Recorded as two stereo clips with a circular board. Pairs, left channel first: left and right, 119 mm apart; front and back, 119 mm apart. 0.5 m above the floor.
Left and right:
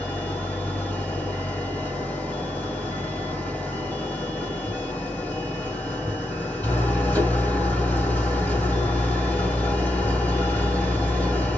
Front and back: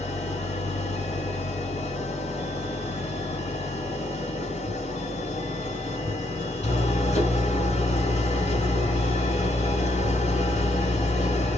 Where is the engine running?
10° left, 1.4 m.